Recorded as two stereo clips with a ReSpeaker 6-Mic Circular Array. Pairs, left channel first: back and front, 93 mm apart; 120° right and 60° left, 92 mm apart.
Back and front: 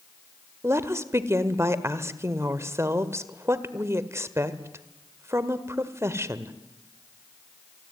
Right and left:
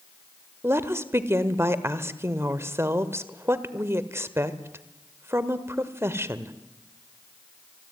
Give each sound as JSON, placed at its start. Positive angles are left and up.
{"t": 0.6, "sound": "a woman speaking", "azimuth_deg": 25, "distance_m": 1.5}